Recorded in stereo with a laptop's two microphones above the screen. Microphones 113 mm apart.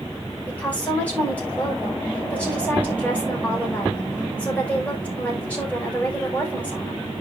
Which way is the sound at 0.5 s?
15° left (ahead or behind).